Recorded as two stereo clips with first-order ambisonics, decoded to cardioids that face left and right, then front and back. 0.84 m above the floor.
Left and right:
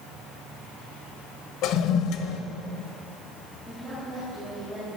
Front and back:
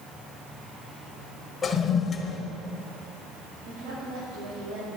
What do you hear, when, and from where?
1.6 s a toilet flushing: 70° left, 1.0 m
3.6 s a woman speaking: 175° right, 5 m